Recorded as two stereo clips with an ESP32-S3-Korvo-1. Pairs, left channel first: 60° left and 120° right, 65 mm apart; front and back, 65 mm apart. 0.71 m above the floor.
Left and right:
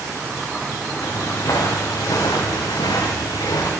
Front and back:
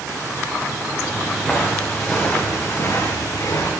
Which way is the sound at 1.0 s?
100° left.